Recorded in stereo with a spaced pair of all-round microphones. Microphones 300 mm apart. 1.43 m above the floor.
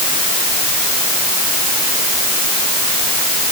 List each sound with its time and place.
Only background noise.